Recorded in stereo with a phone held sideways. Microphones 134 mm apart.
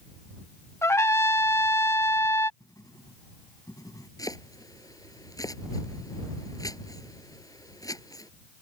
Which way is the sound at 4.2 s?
25° left (ahead or behind).